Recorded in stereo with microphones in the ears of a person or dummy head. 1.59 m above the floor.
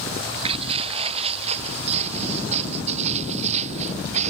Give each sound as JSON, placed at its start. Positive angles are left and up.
{"t": 0.2, "sound": "footsteps", "side_deg": -35}